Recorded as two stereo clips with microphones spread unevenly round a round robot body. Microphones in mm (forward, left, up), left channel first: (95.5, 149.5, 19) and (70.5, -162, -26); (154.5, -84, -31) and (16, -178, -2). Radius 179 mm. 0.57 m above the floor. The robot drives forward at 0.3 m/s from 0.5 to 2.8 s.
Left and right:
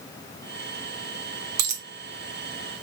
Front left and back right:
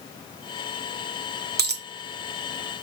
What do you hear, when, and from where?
1.6 s a dropped coin: 110° right, 0.6 m; by 1.9 s 120° right, 0.6 m